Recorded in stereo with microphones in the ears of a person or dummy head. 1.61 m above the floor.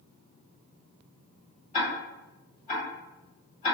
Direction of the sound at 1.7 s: 35° left (ahead or behind).